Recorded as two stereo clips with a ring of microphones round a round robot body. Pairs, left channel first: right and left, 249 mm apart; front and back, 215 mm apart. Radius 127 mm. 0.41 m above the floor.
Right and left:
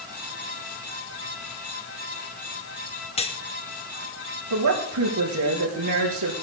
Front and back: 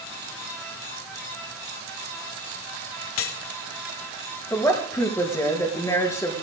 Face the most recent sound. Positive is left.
turn(degrees=80)